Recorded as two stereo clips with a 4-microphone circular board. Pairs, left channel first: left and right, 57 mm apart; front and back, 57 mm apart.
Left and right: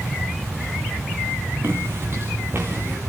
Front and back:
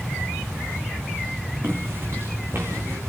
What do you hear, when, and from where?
1.6 s footsteps: 135° right, 6 m; by 3.0 s 140° right, 7 m